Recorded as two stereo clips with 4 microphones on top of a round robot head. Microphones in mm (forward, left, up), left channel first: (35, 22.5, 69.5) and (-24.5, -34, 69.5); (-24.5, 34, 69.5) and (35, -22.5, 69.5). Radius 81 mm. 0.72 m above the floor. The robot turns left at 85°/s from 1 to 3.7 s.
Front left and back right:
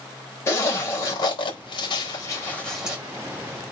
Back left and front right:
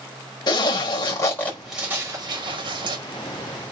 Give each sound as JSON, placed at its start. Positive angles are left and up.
{"t": 0.5, "sound": "a zipper", "azimuth_deg": 100, "distance_m": 4.5}